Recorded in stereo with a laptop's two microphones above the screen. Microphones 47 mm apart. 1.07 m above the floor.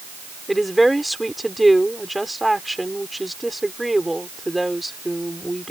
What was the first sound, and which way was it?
A woman speaking, centre (ahead or behind).